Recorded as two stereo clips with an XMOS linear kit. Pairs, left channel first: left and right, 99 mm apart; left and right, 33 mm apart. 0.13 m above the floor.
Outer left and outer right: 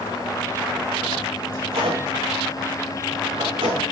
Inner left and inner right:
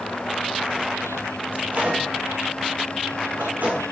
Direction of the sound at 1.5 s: 65° right (ahead or behind).